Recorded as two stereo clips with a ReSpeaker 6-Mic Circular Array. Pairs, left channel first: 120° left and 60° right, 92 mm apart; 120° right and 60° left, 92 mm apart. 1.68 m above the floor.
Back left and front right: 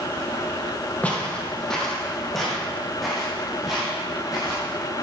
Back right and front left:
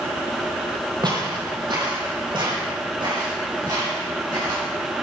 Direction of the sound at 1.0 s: 50° left.